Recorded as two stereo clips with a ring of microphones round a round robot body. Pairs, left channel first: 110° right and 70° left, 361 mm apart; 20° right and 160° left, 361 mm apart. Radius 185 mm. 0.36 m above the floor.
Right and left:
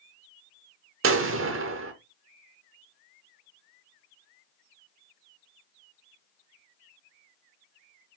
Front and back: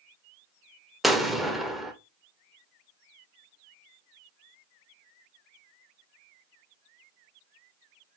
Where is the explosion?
70° left, 0.9 m.